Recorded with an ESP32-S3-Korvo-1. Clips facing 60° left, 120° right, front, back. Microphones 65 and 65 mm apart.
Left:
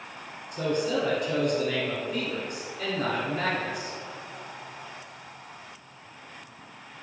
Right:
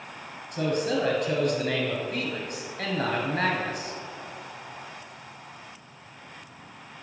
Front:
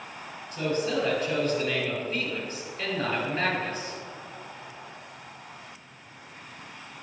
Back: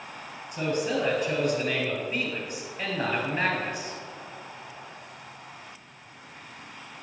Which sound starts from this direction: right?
A man speaking, at 0.5 s.